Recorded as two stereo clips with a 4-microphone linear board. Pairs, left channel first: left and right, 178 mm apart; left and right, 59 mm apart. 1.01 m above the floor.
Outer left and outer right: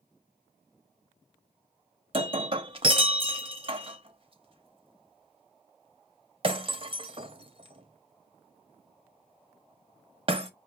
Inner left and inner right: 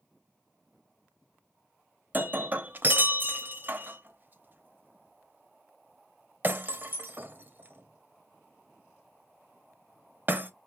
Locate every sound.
2.1 s breaking glass: 30° right (ahead or behind), 0.8 m